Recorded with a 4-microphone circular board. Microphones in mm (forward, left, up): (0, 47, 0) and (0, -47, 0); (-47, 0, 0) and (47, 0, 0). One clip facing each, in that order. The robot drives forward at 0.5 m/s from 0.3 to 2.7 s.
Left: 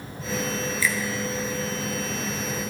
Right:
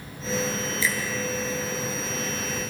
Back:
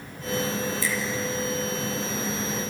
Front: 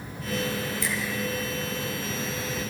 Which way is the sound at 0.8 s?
25° right.